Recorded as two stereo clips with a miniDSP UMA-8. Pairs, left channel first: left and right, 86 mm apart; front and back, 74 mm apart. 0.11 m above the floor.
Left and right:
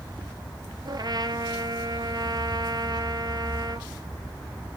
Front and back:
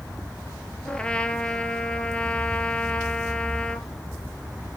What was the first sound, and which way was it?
A trumpet, 75° right.